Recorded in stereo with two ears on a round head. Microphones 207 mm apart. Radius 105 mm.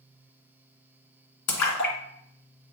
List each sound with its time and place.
1.5 s a splash: 85° left, 1.7 m